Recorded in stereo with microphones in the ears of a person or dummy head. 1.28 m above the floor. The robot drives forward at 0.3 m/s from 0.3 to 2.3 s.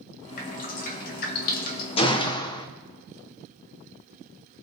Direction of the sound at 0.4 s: 50° left (ahead or behind).